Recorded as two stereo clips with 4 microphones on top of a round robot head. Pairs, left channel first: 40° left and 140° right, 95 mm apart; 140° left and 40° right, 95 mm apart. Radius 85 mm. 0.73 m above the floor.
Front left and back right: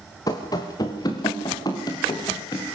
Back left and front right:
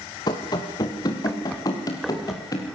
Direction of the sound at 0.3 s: 95° left.